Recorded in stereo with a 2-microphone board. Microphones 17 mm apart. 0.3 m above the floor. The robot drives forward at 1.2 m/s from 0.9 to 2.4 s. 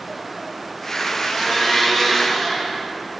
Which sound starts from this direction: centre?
A blender, at 1.2 s.